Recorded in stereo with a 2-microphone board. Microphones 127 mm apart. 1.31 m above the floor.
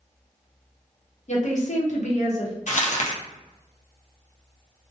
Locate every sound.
1.3 s a woman speaking: 60° left (ahead or behind), 0.8 m; by 2.5 s 55° left (ahead or behind), 0.8 m
2.7 s crumpling: 70° left (ahead or behind), 0.5 m